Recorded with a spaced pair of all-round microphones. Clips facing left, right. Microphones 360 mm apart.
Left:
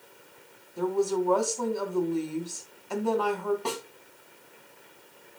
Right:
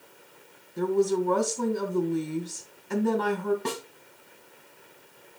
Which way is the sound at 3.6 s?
25° right (ahead or behind).